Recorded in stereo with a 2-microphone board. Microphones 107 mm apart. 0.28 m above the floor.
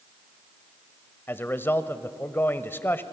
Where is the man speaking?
20° left (ahead or behind), 1.0 m.